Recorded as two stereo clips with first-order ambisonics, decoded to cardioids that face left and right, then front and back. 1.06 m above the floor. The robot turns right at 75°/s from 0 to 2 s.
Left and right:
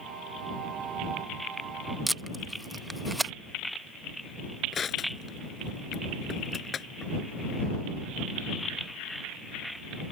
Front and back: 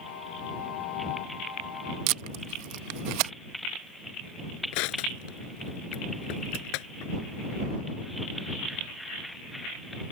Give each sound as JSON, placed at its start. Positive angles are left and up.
{"t": 2.1, "sound": "tape being pulled", "azimuth_deg": -175}
{"t": 4.7, "sound": "crushing", "azimuth_deg": 20}